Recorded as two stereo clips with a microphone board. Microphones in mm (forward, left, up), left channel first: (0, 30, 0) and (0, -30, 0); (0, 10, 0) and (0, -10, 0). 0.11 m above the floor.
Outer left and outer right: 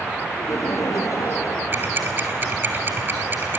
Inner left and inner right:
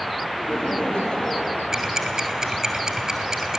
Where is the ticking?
35° right (ahead or behind), 1.7 m.